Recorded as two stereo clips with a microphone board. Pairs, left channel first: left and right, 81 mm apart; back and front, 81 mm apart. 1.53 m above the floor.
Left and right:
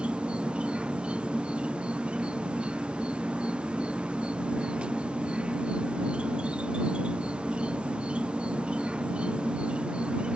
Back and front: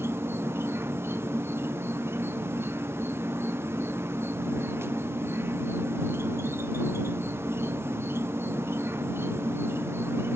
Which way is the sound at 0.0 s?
25° right.